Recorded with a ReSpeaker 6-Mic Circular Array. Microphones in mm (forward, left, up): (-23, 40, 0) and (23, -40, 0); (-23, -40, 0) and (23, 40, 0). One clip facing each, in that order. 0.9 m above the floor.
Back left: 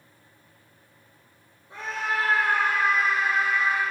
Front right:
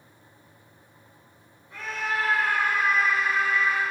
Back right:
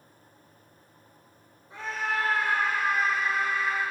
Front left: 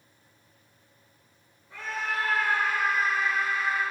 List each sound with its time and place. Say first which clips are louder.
1.7 s a scream: back left 1 dB, back right 1 dB; straight behind, 3 m; by 3.8 s 170° right, 5 m